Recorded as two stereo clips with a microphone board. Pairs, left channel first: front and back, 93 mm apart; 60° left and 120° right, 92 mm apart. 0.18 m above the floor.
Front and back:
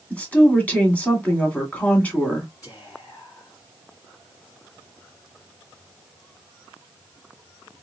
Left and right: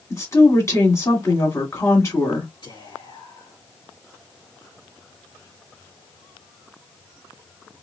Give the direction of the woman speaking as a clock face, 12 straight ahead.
10 o'clock.